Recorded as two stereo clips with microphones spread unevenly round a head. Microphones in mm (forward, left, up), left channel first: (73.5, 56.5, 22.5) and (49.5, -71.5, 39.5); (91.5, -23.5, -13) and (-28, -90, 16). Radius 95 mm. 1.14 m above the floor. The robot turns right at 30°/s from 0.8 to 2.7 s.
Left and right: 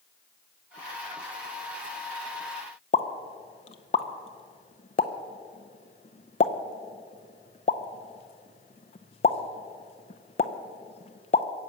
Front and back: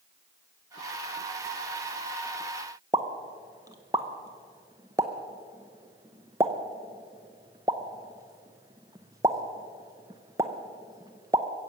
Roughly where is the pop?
Behind left.